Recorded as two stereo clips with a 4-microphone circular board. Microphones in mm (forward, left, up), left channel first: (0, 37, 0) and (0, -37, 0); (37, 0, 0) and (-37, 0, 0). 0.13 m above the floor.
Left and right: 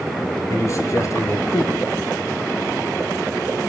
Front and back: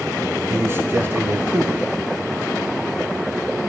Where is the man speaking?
125° left, 1.9 m.